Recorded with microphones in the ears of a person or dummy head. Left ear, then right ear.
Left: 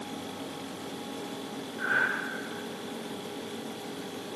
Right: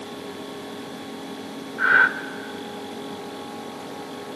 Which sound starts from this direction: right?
Breathing, at 1.8 s.